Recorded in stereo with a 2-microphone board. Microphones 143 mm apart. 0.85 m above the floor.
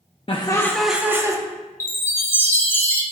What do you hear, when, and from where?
0.3 s laughter: 40° left (ahead or behind), 0.7 m; by 1.4 s 25° right (ahead or behind), 1.1 m
1.8 s a chime: 15° left (ahead or behind), 1.2 m